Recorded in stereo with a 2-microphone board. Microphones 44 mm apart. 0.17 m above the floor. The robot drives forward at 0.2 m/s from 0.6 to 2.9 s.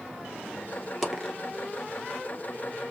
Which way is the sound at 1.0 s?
Centre (ahead or behind).